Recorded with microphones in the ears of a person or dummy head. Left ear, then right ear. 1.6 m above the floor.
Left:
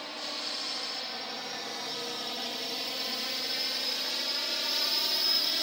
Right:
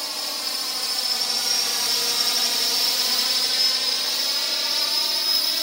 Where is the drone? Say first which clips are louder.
Right 8 dB; 75° right (ahead or behind); by 5.6 s 15° right (ahead or behind).